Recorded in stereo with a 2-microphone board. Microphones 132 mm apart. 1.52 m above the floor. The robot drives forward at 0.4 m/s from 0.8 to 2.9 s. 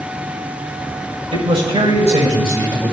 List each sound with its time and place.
1.3 s a man speaking: 55° right (ahead or behind), 6 m; by 2.9 s 50° right (ahead or behind), 6.5 m